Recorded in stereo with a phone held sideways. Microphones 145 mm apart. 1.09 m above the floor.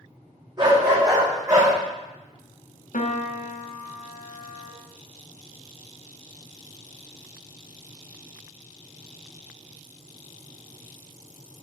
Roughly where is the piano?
Left.